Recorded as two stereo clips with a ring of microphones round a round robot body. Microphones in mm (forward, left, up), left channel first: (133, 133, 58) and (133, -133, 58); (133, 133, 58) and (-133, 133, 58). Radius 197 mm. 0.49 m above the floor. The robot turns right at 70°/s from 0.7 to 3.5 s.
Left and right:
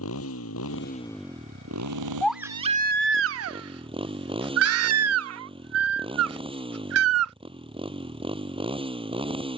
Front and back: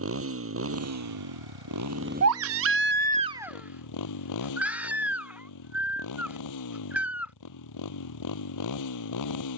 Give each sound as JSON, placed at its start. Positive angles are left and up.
{"t": 0.0, "sound": "a motorcycle", "azimuth_deg": 145}
{"t": 2.2, "sound": "a baby crying", "azimuth_deg": 175}